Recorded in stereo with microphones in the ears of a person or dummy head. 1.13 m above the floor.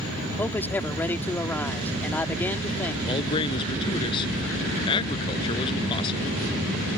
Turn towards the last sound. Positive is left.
turn(degrees=25)  # may be behind; listen again after turning